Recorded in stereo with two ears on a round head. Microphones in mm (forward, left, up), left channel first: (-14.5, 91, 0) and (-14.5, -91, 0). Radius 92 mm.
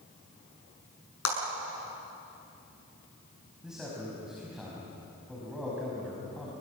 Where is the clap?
80° left, 7 m.